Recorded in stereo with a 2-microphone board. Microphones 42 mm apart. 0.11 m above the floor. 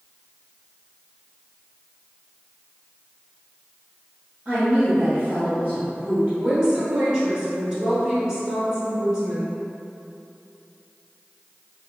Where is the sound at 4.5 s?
30° right (ahead or behind), 1.8 m.